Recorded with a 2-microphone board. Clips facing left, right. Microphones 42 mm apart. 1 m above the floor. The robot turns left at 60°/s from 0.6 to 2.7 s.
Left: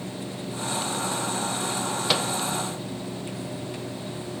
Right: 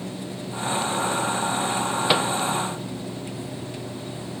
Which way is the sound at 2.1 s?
20° right (ahead or behind).